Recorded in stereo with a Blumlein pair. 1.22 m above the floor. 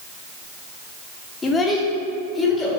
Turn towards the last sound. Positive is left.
turn(degrees=10)